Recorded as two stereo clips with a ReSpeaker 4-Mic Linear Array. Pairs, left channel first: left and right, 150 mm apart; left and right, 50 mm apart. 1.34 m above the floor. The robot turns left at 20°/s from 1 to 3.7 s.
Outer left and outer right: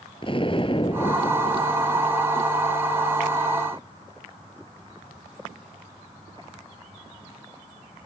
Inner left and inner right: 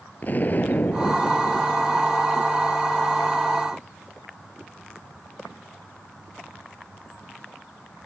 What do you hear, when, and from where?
0.2 s an explosion: 35° left (ahead or behind); by 2.2 s 55° left (ahead or behind)